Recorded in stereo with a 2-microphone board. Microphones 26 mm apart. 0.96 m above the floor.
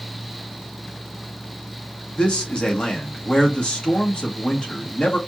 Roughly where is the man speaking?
Left.